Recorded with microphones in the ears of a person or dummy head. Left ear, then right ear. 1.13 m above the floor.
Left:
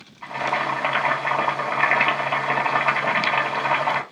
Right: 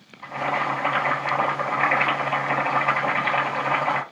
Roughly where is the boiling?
Left.